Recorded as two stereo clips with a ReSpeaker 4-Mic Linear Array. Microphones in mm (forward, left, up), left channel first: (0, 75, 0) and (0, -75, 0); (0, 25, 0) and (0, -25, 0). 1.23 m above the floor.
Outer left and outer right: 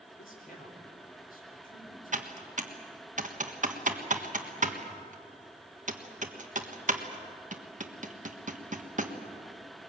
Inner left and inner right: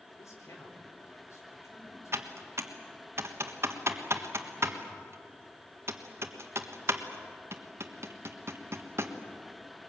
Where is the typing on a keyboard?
55° right (ahead or behind), 1.4 m.